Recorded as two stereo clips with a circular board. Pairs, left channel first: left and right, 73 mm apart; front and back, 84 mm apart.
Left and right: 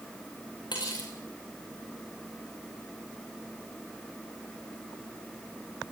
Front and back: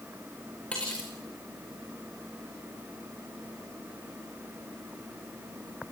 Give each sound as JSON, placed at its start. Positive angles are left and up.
{"t": 0.7, "sound": "cutlery clinking", "azimuth_deg": 75, "distance_m": 7.0}